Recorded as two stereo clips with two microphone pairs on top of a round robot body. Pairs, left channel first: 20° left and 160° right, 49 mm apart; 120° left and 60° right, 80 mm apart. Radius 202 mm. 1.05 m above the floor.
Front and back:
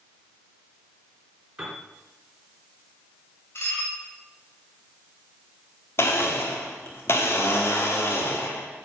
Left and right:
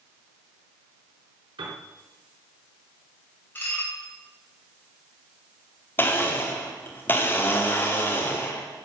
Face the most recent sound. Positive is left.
turn(degrees=55)